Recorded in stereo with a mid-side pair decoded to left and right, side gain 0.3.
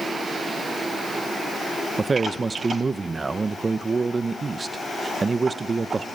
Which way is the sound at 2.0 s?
45° right.